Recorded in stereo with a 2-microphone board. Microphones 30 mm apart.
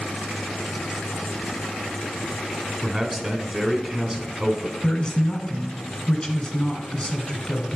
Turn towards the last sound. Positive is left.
turn(degrees=25)  # may be behind; listen again after turning